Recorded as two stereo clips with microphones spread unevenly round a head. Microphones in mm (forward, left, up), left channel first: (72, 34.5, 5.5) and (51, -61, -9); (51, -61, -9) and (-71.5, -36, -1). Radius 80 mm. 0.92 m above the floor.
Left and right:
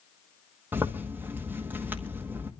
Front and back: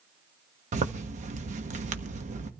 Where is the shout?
No shout in this recording.